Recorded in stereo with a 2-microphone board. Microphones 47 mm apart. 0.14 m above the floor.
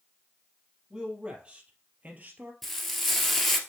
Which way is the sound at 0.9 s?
20° right (ahead or behind).